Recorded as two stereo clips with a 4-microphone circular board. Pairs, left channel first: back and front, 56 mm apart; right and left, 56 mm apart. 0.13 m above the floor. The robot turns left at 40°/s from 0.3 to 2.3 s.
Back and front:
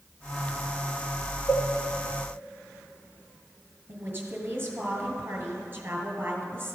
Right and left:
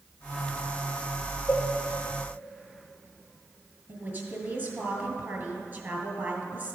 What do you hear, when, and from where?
1.5 s a cowbell: 155° right, 1.4 m; by 1.7 s 165° right, 1.4 m
3.9 s a woman speaking: 45° left, 2.5 m